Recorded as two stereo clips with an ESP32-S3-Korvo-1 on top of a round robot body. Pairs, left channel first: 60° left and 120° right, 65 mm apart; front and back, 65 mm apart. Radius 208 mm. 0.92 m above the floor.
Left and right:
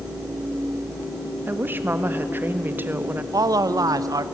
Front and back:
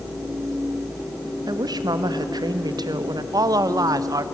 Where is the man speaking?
150° right, 0.8 m.